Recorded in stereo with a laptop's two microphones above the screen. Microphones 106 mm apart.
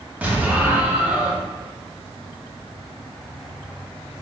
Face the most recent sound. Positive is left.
turn(degrees=-15)  # may be behind; listen again after turning